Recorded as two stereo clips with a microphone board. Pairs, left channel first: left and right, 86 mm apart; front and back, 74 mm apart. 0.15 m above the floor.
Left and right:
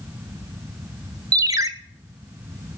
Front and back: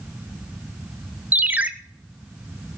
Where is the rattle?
No rattle in this recording.